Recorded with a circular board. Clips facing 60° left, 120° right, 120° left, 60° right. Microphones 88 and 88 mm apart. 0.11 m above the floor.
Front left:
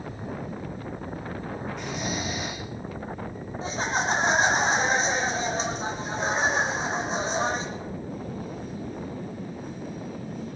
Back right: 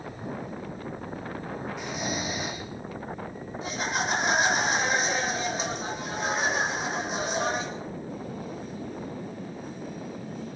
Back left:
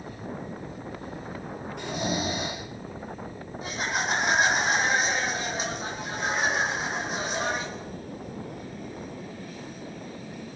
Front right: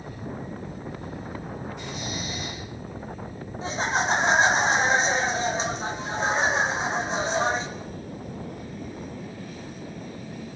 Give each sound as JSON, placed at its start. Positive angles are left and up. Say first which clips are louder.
{"t": 1.8, "sound": "snoring", "louder": "even, back left 5 dB", "azimuth_deg": 150, "distance_m": 7.0}
{"t": 3.6, "sound": "laughter", "louder": "front left 3 dB, front right 4 dB", "azimuth_deg": 0, "distance_m": 7.0}